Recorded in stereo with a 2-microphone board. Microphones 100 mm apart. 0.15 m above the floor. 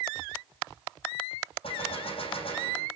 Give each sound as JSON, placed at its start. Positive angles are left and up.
{"t": 1.6, "sound": "a gunshot", "side_deg": 65, "distance_m": 5.5}